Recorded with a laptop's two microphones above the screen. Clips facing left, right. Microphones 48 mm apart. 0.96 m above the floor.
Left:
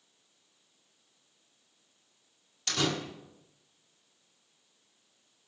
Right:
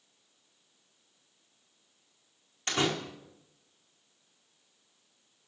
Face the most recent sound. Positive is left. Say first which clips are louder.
# right 1 dB
turn(degrees=-35)  # may be behind; listen again after turning